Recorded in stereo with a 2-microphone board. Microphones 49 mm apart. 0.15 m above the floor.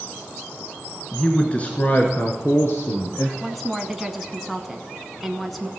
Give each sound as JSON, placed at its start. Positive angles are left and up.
{"t": 1.1, "sound": "a man speaking", "side_deg": 15, "distance_m": 1.4}
{"t": 3.4, "sound": "a woman speaking", "side_deg": 0, "distance_m": 1.0}